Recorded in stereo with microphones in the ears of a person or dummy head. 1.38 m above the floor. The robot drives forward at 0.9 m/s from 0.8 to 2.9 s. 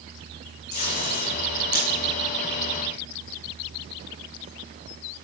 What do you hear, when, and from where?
0.7 s tape being pulled: 55° left (ahead or behind), 7.5 m; by 1.9 s 50° left (ahead or behind), 8 m